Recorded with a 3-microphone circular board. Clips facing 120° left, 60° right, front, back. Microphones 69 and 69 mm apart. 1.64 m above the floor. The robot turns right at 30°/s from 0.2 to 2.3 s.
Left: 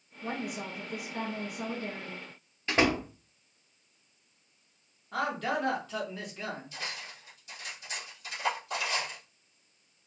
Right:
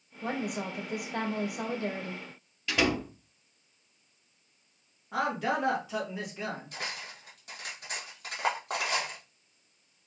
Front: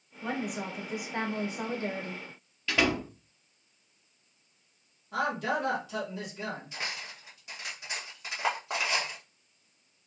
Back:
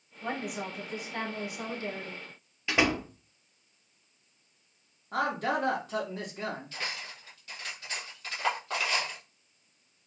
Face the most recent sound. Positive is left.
turn(degrees=-70)